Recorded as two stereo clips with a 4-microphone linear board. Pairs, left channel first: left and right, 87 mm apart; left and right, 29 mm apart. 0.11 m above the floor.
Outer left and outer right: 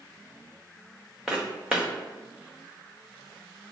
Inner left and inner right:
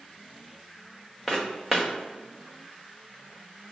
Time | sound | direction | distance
1.3 | footsteps | 5° right (ahead or behind) | 0.5 m